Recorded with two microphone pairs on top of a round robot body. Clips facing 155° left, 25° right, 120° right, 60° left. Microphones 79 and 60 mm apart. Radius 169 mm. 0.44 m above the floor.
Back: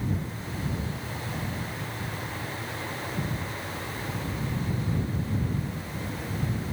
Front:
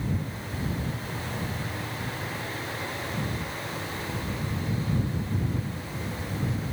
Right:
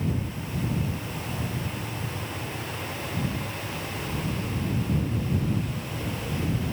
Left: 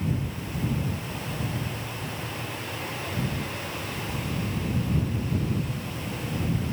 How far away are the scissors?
I don't hear scissors.